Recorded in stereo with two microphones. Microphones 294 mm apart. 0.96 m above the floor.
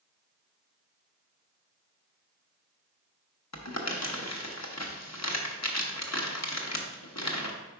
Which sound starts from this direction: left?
Crumpling, at 3.5 s.